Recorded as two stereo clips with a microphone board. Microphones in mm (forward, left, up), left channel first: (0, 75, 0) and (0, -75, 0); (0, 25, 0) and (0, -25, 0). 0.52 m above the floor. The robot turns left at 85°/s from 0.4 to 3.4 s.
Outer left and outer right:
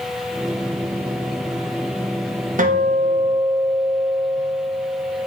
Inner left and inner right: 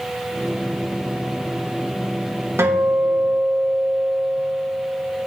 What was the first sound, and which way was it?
A guitar, 85° right.